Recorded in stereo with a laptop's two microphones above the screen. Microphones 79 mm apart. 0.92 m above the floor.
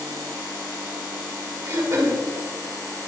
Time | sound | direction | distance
1.6 | throat clearing | 50° right (ahead or behind) | 4 m